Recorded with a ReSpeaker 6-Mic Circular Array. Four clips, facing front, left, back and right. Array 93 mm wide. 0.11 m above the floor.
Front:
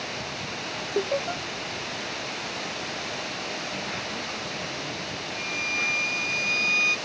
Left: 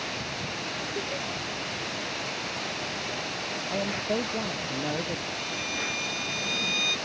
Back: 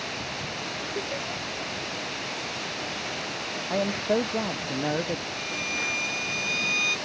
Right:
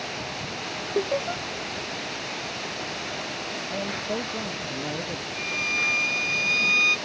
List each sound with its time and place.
0.9 s laughter: 55° right
3.7 s a man speaking: 170° left
5.3 s a violin: 70° right